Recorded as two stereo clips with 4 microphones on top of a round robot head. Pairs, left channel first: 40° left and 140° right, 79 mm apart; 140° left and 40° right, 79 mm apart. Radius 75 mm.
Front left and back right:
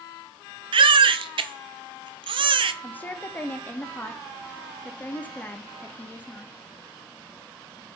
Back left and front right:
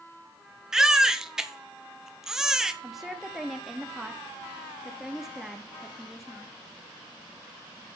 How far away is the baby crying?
About 0.7 m.